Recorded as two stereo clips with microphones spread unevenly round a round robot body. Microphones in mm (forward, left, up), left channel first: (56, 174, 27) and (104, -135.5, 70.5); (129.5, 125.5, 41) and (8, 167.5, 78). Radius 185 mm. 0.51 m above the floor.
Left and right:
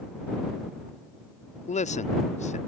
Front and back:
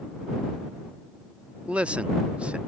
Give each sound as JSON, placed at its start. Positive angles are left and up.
{"t": 1.6, "sound": "a man speaking", "azimuth_deg": 60}